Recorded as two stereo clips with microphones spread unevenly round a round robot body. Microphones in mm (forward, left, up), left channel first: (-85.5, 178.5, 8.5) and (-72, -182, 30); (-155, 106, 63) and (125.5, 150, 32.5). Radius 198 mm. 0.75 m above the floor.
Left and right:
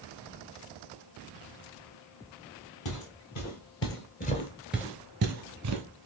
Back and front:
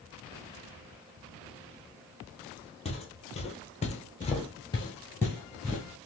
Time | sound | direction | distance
2.9 | footsteps | 125° left | 1.5 m